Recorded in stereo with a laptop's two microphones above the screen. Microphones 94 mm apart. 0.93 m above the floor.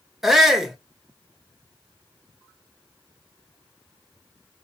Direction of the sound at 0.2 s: 5° right (ahead or behind).